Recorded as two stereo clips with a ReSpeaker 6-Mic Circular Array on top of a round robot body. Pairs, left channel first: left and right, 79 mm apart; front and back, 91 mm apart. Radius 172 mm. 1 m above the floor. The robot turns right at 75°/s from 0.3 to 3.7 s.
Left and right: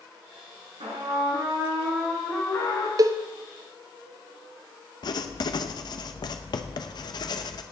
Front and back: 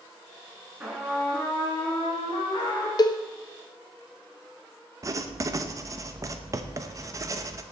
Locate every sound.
0.8 s a trumpet: 105° right, 3 m; by 2.9 s 55° left, 3 m
3.0 s a cowbell: 45° right, 0.7 m; by 3.2 s 30° right, 0.7 m
5.0 s writing: 125° left, 0.7 m